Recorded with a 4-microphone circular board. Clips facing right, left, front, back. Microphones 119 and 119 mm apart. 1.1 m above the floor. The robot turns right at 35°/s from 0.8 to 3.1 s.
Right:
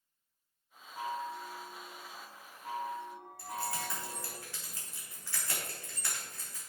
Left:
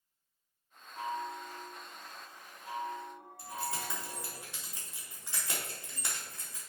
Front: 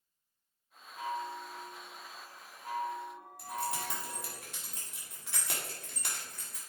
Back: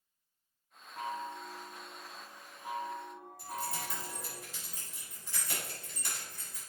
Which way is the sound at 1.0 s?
160° right.